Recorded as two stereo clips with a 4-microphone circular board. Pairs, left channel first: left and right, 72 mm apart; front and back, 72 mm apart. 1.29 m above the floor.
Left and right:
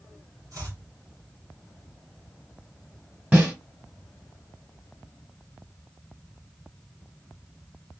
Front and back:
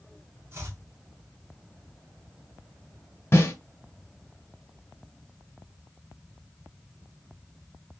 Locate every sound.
0.5 s chopping: 120° right, 1.5 m
3.3 s a snare drum: 30° right, 1.5 m